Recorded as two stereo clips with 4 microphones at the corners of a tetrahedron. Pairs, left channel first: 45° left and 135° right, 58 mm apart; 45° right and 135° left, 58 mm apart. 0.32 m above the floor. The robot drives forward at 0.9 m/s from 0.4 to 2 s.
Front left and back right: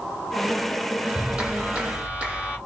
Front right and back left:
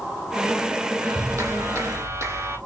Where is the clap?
145° left, 2 m; by 2.6 s 155° left, 3 m.